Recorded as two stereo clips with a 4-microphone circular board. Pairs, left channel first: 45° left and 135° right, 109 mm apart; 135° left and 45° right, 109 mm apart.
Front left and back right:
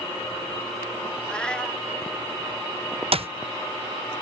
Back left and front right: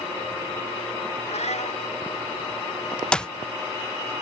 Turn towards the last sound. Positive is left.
turn(degrees=-145)